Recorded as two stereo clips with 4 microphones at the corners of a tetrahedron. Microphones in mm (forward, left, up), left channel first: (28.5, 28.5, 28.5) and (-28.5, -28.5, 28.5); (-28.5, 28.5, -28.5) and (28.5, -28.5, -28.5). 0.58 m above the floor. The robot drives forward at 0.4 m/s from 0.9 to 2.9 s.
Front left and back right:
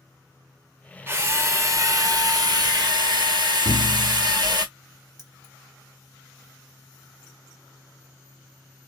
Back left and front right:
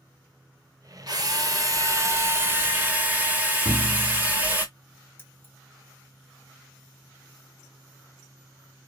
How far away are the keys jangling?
About 1.2 m.